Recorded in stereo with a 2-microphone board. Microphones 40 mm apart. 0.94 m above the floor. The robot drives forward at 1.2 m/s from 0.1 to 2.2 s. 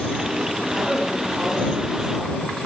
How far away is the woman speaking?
About 8 m.